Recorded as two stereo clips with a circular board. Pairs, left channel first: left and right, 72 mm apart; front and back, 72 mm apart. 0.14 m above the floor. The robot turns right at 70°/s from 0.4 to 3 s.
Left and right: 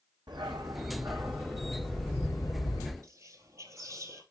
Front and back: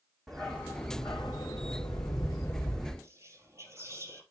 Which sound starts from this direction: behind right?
Whispering, at 3.0 s.